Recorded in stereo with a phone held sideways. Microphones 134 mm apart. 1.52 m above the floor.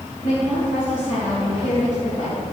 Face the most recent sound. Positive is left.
turn(degrees=65)  # may be behind; listen again after turning